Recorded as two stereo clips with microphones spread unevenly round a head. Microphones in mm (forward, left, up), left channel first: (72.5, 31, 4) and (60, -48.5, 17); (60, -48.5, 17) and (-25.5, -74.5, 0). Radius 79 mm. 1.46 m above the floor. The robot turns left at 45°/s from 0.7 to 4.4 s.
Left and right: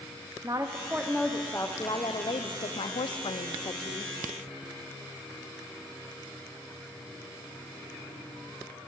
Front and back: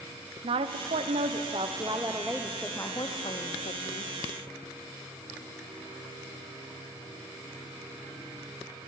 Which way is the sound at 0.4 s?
170° right.